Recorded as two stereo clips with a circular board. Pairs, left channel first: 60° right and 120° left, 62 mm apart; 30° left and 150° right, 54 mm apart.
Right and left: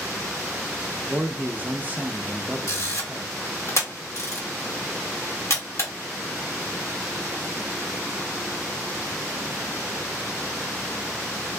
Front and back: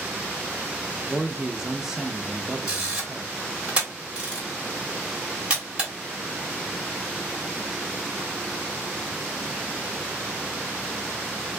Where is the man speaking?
145° left, 0.6 m.